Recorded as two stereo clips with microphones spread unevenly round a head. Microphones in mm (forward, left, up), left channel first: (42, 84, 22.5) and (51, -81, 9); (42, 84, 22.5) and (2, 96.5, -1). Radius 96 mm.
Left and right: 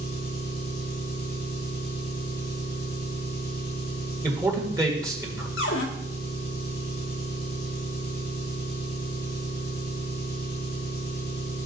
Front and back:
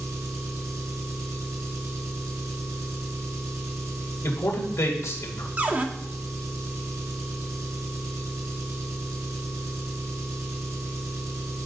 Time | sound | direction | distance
0.0 | an engine running | 145° left | 2 m
4.2 | a man speaking | 15° right | 1.9 m
5.6 | a cupboard door | 100° left | 1.1 m